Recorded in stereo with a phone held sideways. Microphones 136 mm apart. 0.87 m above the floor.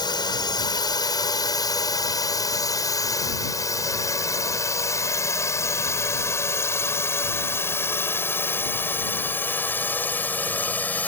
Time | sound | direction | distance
0.0 | a drone | 35° left (ahead or behind) | ?